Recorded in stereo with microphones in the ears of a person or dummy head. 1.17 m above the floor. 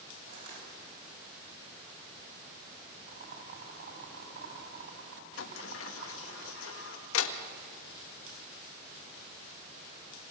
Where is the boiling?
55° right (ahead or behind), 7.5 m.